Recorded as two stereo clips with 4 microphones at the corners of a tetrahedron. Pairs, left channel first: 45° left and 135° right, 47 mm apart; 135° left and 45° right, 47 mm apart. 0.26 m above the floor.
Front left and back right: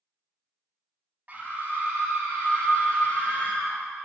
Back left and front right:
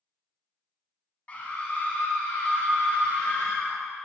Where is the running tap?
No running tap in this recording.